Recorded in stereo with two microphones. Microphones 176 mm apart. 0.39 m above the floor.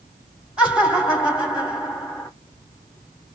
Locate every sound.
0.6 s laughter: 5° right (ahead or behind), 2 m